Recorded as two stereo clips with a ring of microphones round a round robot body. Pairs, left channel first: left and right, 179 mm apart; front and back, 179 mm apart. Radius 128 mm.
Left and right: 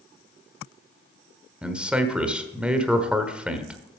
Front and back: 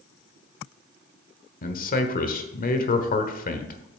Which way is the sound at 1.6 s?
10° right.